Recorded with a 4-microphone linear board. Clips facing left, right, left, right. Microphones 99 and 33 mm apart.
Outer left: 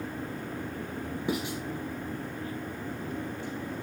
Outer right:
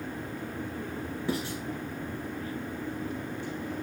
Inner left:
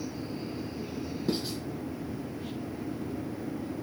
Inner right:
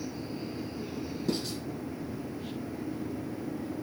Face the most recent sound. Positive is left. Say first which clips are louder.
# outer left 1 dB, inner left 1 dB
turn(degrees=20)  # may be behind; listen again after turning